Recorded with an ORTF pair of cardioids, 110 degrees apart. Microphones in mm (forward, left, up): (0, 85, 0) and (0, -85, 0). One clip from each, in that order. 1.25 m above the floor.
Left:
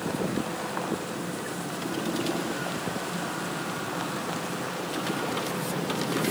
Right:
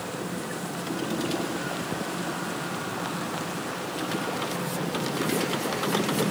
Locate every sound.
Only background noise.